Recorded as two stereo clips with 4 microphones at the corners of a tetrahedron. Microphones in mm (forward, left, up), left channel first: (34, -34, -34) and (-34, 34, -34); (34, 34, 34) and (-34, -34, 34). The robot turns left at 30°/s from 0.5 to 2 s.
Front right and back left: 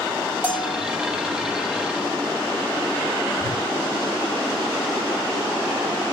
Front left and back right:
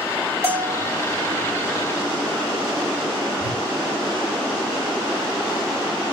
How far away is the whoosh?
About 1.5 m.